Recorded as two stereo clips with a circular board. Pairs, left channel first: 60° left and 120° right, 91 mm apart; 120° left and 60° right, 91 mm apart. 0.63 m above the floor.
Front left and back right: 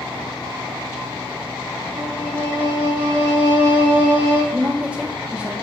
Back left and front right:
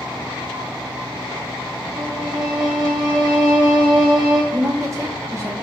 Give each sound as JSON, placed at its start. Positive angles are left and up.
{"t": 1.9, "sound": "a violin", "azimuth_deg": -65, "distance_m": 2.0}
{"t": 4.5, "sound": "a woman speaking", "azimuth_deg": -50, "distance_m": 0.6}